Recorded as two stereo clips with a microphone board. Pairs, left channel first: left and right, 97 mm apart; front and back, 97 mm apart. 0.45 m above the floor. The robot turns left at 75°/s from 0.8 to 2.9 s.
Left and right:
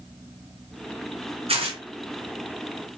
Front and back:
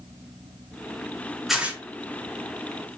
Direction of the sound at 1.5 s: 90° right.